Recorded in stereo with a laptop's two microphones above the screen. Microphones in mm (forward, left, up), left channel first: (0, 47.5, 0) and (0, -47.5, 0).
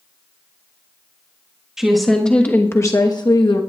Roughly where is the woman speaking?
Centre.